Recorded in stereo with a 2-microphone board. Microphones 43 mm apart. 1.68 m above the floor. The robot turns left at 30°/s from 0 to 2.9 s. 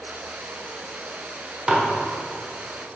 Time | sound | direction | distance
1.7 | dishes clattering | 15° right (ahead or behind) | 0.6 m